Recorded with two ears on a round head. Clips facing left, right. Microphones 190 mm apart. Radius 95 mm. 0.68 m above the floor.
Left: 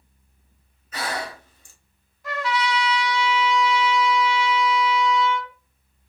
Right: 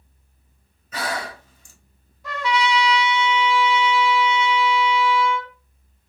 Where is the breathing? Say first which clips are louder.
Right 1 dB; 70° right (ahead or behind), 0.9 m.